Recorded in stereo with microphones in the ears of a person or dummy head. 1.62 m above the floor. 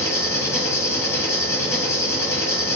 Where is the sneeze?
No sneeze in this recording.